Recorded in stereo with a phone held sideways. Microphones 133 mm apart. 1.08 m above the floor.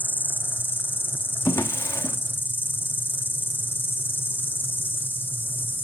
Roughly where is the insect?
Centre.